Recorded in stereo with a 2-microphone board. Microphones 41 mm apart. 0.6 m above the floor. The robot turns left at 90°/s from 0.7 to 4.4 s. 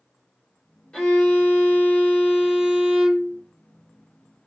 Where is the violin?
155° left, 2 m; by 3.4 s 70° right, 2 m.